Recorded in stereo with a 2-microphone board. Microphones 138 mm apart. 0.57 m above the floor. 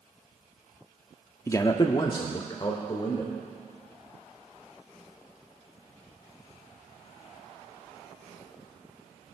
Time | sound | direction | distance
1.5 | a man speaking | 20° left (ahead or behind) | 0.7 m